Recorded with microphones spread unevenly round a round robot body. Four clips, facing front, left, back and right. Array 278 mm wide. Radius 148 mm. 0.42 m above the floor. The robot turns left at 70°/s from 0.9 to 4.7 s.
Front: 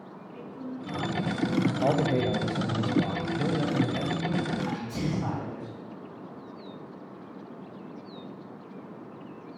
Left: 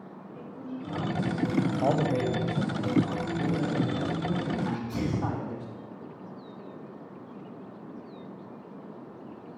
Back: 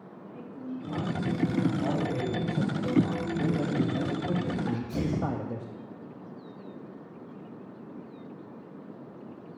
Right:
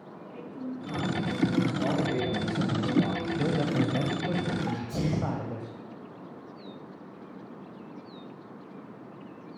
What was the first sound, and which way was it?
A woman speaking, 150° right.